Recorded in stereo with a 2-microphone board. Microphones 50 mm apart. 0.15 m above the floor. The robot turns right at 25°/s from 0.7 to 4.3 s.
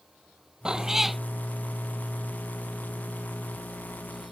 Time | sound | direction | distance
0.7 | a cat meowing | 15° right (ahead or behind) | ?